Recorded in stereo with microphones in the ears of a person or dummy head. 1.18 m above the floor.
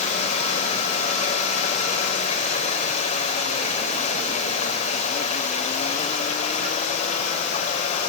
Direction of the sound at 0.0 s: 40° left (ahead or behind).